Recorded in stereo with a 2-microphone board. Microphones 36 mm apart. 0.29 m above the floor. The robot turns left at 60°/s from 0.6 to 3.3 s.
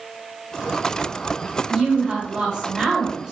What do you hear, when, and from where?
1.7 s a woman speaking: 10° right (ahead or behind), 1.0 m; by 3.3 s 15° right (ahead or behind), 1.0 m